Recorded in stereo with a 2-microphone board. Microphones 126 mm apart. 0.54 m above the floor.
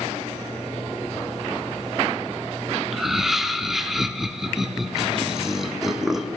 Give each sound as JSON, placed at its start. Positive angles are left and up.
{"t": 2.9, "sound": "laughter", "side_deg": 0, "distance_m": 0.8}